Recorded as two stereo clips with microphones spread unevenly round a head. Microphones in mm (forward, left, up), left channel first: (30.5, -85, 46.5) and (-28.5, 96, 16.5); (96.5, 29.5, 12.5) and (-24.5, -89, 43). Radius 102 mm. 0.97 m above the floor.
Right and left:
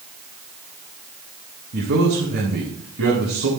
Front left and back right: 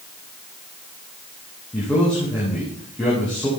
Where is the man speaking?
130° left, 9.5 m.